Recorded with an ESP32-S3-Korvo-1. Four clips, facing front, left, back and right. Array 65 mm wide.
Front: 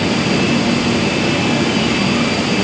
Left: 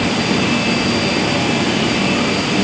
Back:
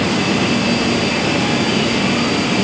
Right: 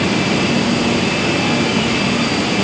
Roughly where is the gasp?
I don't hear a gasp.